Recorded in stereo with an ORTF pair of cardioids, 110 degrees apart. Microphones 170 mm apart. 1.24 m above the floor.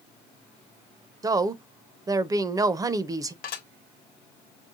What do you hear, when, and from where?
1.2 s a woman speaking: 20° right, 0.7 m
3.4 s dishes clattering: 65° left, 1.2 m